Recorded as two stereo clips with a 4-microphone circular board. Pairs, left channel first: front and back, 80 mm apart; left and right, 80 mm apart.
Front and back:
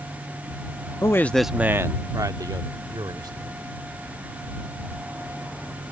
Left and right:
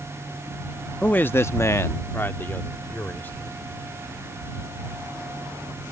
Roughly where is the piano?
No piano in this recording.